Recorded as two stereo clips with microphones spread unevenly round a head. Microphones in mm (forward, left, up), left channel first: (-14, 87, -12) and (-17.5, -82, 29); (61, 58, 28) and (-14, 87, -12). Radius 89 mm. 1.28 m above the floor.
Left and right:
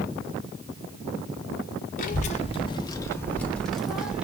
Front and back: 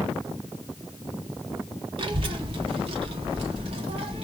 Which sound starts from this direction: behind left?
A child speaking, at 2.0 s.